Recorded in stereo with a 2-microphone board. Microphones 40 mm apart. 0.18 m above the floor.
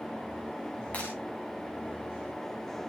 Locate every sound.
0.9 s breaking glass: 35° left (ahead or behind), 8 m